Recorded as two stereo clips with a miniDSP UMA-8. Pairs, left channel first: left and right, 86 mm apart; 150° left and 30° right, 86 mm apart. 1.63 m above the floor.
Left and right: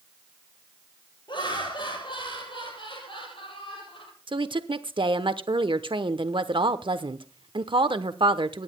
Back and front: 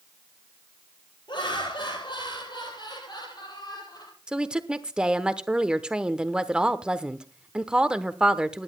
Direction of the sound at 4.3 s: 110° right.